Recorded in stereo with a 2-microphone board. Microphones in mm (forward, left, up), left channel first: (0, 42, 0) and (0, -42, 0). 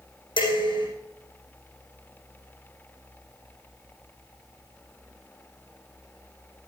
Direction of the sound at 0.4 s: 75° left (ahead or behind).